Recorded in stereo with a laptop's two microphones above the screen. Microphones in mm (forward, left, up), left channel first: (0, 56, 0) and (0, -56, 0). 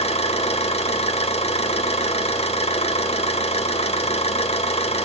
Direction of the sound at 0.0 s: 65° left (ahead or behind).